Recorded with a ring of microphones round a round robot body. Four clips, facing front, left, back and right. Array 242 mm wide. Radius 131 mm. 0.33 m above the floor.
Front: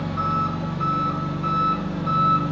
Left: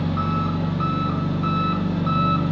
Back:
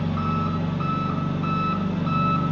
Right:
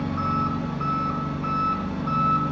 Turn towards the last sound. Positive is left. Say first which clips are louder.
# left 1 dB, front 1 dB
turn(degrees=110)